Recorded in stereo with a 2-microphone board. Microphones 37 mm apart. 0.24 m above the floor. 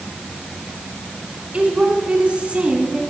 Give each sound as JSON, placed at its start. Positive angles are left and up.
{"t": 1.5, "sound": "a woman speaking", "side_deg": -30, "distance_m": 2.5}